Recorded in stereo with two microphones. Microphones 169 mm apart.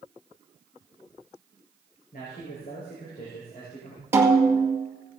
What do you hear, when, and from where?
2.1 s a man speaking: 60° left (ahead or behind), 3.5 m
4.1 s a snare drum: 15° right (ahead or behind), 2.0 m